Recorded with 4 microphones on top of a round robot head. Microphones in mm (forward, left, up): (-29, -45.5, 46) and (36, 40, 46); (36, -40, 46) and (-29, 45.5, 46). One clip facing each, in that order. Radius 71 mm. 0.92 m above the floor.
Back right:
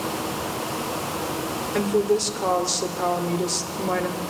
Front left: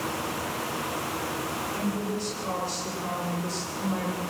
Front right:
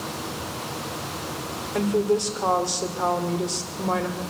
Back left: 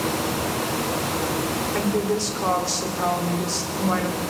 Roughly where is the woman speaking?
Behind right.